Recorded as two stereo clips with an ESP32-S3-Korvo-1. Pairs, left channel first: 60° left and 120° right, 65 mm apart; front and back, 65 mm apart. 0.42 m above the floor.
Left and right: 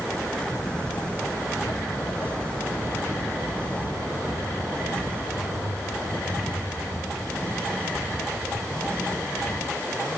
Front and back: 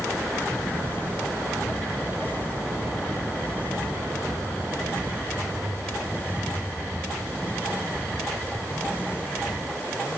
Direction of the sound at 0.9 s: 120° left.